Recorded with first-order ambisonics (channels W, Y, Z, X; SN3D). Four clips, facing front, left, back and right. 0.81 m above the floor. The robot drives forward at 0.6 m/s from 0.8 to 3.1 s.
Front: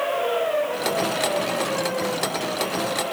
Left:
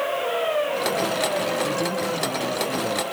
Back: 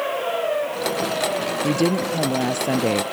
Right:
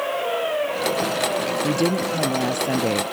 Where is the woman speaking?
150° right.